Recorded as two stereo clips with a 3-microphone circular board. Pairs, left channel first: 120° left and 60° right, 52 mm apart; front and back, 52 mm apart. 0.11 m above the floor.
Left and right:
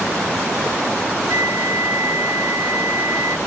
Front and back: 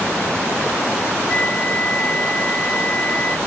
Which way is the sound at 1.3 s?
65° right.